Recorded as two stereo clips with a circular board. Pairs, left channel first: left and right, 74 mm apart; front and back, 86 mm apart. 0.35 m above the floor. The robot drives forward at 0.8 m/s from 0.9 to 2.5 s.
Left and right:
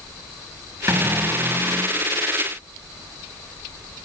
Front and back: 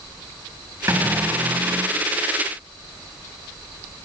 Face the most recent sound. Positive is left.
turn(degrees=-155)